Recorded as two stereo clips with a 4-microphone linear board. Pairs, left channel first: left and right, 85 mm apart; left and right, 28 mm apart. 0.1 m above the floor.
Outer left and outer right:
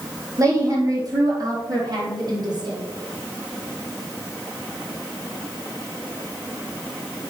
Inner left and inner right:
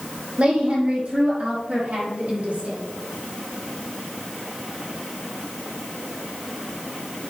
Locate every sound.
0.4 s a woman speaking: 45° right (ahead or behind), 5 m; by 2.8 s 60° right (ahead or behind), 6 m